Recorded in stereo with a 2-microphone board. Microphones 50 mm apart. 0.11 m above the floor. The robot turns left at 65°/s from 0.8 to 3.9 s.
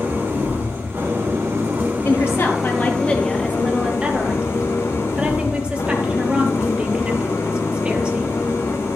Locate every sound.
0.0 s an engine running: 55° right, 4 m; by 9.0 s 100° left, 4 m
2.0 s a woman speaking: 95° left, 2 m; by 8.3 s 25° right, 2 m